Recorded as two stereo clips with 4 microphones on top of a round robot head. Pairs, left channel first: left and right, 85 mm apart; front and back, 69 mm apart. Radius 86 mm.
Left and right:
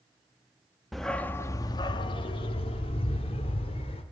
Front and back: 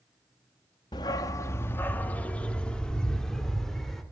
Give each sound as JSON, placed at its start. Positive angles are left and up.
{"t": 0.9, "sound": "a dog barking", "azimuth_deg": 0, "distance_m": 0.6}